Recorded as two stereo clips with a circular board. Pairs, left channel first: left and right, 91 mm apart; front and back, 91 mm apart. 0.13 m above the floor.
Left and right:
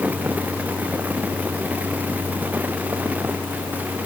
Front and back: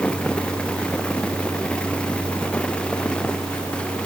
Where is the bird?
I don't hear a bird.